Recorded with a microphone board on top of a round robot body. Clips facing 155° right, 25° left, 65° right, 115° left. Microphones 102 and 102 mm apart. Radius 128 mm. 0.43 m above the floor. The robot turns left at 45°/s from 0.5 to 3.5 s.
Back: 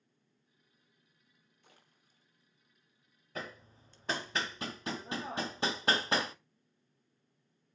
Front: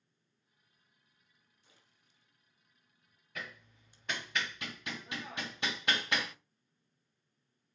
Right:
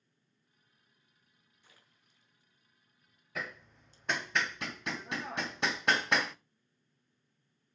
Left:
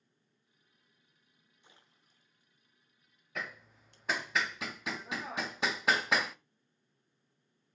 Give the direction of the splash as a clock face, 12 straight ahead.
6 o'clock.